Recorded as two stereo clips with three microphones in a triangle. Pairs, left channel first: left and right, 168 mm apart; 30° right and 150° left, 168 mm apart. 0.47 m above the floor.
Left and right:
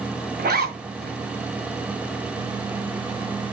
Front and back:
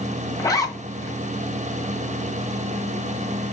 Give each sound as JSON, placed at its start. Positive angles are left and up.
{"t": 0.4, "sound": "a zipper", "azimuth_deg": -100, "distance_m": 1.8}